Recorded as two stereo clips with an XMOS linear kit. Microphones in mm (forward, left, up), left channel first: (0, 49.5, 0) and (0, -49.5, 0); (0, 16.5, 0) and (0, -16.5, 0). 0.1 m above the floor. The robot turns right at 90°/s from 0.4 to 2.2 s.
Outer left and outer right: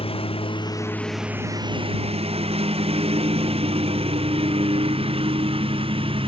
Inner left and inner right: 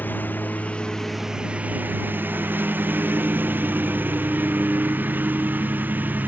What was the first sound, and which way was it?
A lawn mower, 70° left (ahead or behind).